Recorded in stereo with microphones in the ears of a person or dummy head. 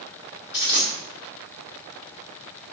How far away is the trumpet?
I don't hear a trumpet.